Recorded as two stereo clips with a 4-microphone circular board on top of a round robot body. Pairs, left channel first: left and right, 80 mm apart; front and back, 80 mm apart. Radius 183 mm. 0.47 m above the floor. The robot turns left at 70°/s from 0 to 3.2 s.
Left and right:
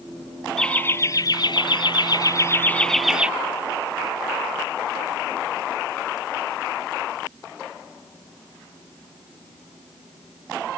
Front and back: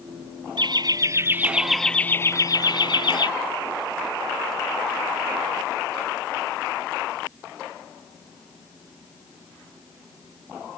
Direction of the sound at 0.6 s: 170° left.